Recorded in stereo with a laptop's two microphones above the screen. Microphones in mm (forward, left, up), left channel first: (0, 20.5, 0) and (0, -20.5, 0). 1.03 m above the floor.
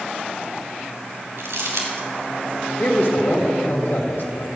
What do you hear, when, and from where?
1.4 s crumpling: 85° right, 3 m
2.8 s a man speaking: 60° left (ahead or behind), 1.7 m